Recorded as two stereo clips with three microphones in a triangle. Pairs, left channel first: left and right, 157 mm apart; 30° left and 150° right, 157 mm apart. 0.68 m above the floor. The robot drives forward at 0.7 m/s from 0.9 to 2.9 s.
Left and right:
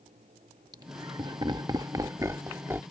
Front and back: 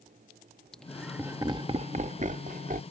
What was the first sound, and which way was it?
Laughter, 50° right.